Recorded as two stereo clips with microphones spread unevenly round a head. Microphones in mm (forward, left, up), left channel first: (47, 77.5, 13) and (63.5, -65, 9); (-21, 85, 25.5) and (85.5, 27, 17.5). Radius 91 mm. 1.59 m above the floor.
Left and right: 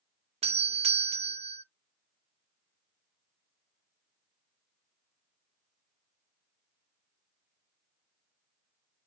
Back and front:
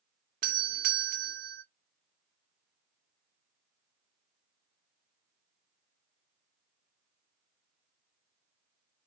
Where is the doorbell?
35° right, 0.5 m.